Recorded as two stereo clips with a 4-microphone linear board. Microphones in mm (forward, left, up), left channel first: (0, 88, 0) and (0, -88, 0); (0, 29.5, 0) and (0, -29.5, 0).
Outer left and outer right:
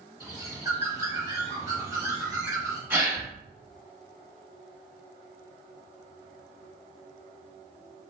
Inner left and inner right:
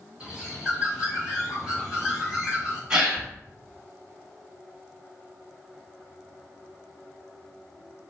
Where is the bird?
20° right (ahead or behind), 1.0 m.